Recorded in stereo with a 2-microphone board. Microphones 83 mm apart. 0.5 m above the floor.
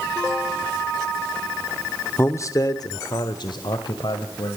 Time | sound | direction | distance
2.2 | a man speaking | 30° left (ahead or behind) | 0.9 m